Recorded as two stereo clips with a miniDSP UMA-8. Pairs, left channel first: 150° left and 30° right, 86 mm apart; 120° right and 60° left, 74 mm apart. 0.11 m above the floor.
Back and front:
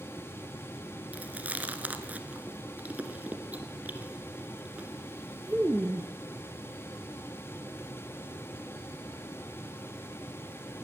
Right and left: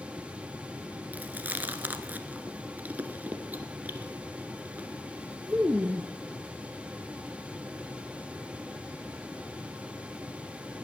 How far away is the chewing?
About 1.4 m.